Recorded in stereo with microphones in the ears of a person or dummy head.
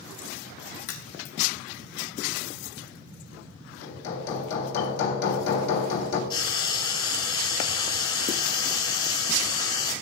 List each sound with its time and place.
0.9 s a crack: 65° left (ahead or behind), 3 m
3.8 s hammering: 50° left (ahead or behind), 2 m
6.3 s frying: 30° left (ahead or behind), 3.5 m